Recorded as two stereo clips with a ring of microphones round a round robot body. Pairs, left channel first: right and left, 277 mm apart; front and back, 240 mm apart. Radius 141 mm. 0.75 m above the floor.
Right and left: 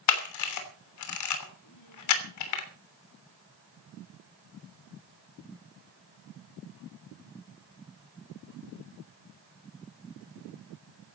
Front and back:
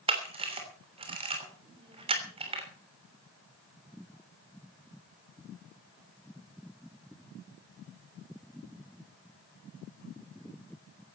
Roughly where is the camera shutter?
Right.